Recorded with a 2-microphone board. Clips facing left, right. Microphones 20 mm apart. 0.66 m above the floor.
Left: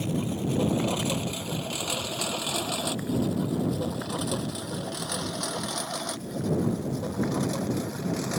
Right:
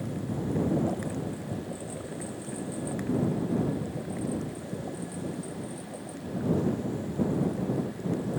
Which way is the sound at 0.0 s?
80° left.